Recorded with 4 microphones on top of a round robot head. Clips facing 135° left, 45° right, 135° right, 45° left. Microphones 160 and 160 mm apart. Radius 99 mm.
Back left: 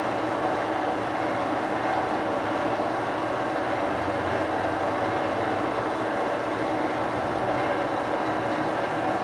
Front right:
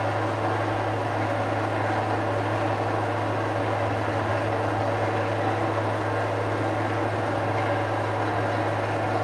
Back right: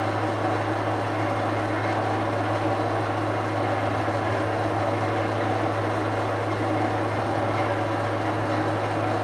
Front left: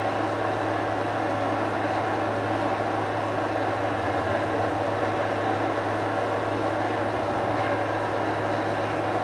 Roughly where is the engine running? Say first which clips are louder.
Even, even; behind right.